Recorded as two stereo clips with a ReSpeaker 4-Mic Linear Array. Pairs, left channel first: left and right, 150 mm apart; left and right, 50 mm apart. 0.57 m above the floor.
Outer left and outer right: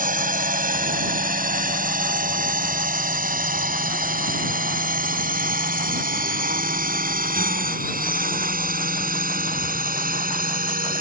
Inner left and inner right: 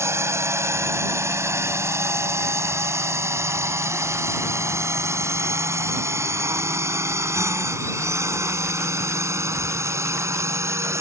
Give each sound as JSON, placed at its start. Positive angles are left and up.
{"t": 0.0, "sound": "a drone", "side_deg": -70}